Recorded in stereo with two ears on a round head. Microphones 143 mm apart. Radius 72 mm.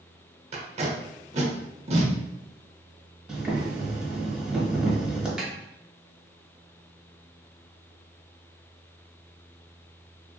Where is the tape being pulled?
40° right (ahead or behind), 0.7 m.